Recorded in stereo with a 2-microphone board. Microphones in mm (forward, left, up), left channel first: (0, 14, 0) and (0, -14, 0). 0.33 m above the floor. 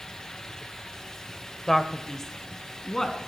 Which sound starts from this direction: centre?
A man speaking, at 1.7 s.